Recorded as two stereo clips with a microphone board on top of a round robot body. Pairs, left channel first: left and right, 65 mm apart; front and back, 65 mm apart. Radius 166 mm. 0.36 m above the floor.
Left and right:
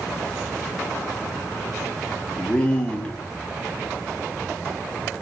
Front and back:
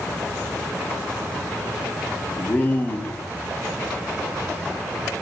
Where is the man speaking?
30° left, 0.8 m.